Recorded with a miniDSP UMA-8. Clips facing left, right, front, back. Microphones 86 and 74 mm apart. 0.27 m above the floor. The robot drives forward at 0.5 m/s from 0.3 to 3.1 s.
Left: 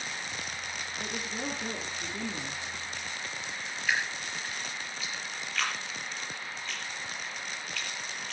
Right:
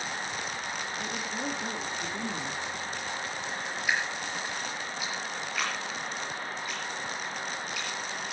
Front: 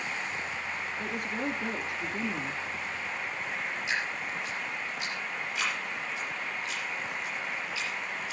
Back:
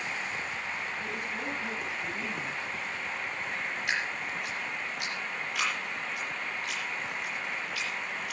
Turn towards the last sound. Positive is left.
turn(degrees=-170)